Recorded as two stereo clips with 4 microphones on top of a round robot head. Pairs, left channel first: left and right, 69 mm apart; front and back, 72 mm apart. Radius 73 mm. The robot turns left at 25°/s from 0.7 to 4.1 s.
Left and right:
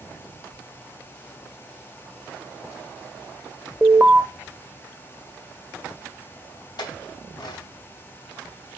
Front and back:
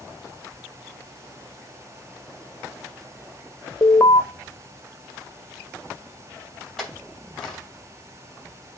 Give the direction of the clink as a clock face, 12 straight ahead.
9 o'clock.